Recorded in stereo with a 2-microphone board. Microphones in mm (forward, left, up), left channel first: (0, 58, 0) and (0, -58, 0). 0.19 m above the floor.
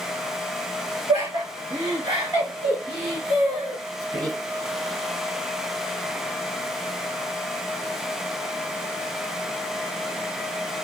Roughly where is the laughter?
Right.